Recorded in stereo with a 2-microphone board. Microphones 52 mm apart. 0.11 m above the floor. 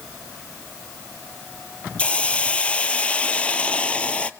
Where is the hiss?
25° left (ahead or behind), 0.6 m.